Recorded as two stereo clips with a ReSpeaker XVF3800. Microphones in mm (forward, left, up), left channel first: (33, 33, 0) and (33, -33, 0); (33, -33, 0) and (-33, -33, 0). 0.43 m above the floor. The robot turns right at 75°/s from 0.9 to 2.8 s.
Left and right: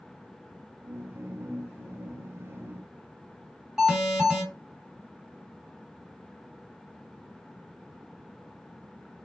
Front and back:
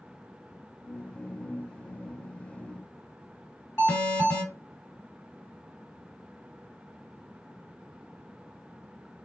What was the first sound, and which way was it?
An alarm, 10° right.